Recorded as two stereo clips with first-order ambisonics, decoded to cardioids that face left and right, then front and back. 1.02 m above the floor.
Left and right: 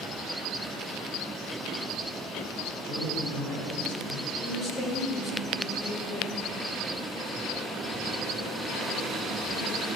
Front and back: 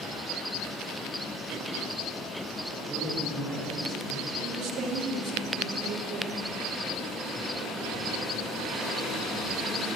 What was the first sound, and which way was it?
A man speaking, 115° left.